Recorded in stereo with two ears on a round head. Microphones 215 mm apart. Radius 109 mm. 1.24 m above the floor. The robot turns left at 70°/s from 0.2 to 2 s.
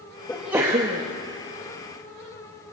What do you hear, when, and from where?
0.3 s a sneeze: 10° left, 1.5 m; by 1.0 s 45° right, 1.5 m